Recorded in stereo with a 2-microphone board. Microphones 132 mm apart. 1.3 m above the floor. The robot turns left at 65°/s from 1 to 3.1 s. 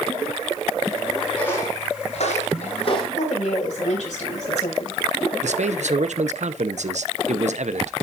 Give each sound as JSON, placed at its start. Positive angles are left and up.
{"t": 1.4, "sound": "footsteps", "side_deg": 10, "distance_m": 3.5}
{"t": 3.1, "sound": "a woman speaking", "side_deg": 75, "distance_m": 5.0}
{"t": 5.4, "sound": "a man speaking", "side_deg": -70, "distance_m": 0.8}